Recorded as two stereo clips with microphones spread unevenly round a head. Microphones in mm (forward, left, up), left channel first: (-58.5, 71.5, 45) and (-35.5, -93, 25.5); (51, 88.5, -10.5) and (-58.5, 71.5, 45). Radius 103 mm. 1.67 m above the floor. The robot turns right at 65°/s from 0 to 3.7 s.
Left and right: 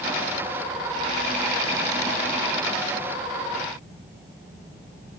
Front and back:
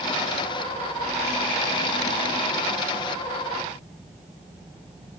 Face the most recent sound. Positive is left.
No sound to turn to.